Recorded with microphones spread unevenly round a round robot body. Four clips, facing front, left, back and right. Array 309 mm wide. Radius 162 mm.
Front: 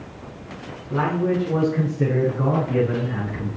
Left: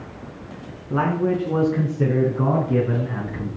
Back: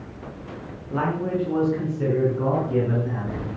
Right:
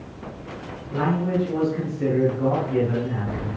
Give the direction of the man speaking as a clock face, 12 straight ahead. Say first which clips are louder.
Left 2 dB, front 3 dB; 9 o'clock.